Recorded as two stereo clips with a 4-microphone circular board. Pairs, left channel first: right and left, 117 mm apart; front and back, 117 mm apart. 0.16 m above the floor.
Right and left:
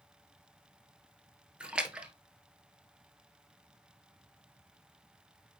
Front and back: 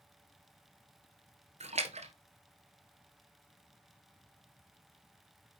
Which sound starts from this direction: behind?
A splash, at 1.6 s.